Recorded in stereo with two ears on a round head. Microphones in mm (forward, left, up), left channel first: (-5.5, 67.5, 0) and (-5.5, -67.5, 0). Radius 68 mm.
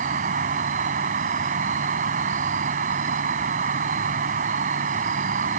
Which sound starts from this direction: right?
An insect, at 0.0 s.